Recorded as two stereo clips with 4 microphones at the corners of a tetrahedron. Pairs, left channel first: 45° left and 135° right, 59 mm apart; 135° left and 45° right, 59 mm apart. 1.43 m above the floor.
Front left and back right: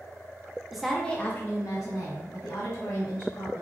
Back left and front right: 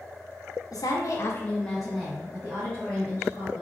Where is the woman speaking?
140° left, 0.7 m; by 3.6 s 10° left, 1.7 m.